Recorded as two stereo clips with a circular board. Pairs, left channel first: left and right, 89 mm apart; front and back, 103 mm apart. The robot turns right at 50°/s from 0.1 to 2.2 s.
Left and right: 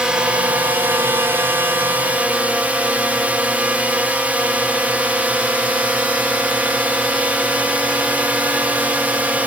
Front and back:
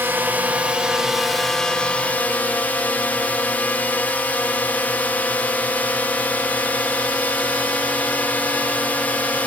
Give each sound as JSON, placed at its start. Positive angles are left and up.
{"t": 0.0, "sound": "a drone", "azimuth_deg": -150}